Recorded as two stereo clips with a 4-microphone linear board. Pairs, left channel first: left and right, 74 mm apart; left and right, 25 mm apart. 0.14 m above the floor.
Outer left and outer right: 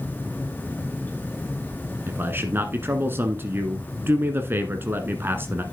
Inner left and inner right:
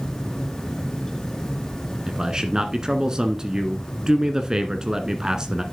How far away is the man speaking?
About 1.3 m.